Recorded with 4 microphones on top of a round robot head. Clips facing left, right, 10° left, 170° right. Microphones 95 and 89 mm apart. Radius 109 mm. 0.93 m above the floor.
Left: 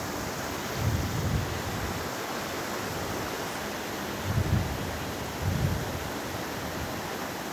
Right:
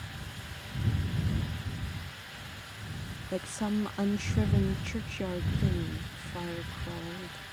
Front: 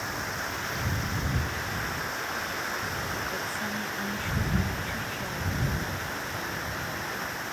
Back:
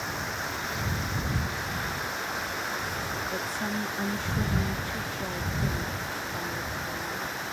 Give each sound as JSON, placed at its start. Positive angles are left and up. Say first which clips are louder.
{"t": 0.0, "sound": "running water", "louder": "left 13 dB, even", "azimuth_deg": 100}
{"t": 3.3, "sound": "a woman speaking", "louder": "right 2 dB, back 1 dB", "azimuth_deg": -100}